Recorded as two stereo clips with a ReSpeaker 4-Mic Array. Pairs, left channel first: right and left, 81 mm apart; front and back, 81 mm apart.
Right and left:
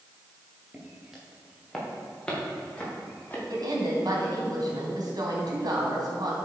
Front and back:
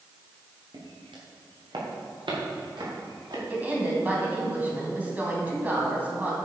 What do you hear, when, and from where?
0.7 s footsteps: 170° left, 4 m; by 3.4 s 155° right, 6.5 m
3.5 s a woman speaking: 115° left, 3 m